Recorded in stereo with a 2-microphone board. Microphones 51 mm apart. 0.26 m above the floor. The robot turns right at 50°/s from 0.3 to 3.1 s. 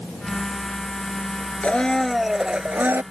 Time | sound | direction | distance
1.6 | a blender | 150° left | ?